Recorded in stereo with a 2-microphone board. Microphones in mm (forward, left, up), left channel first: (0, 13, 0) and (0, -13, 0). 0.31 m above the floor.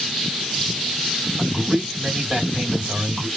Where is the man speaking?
35° right (ahead or behind), 1.8 m.